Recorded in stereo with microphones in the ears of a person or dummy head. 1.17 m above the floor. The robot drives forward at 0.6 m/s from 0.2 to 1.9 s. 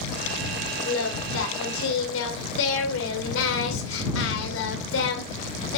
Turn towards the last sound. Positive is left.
turn(degrees=80)